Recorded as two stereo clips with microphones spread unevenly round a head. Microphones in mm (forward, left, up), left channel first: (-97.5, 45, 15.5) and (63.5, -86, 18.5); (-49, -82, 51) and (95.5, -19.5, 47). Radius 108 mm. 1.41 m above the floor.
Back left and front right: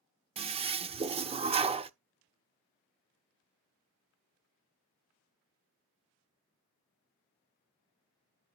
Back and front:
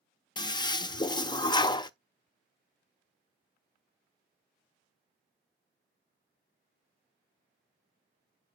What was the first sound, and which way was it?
A toilet flushing, 95° right.